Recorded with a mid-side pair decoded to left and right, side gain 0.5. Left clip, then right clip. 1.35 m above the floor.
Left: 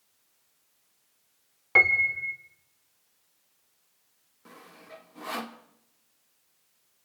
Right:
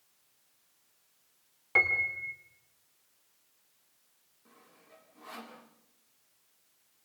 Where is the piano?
30° left, 2.5 m.